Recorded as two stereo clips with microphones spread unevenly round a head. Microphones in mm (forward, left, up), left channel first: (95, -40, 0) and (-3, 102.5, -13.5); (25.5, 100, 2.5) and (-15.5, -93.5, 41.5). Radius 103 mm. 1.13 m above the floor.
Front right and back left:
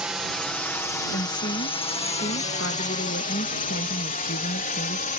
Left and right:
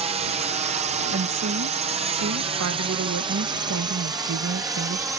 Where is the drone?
155° right; by 5.2 s 25° right.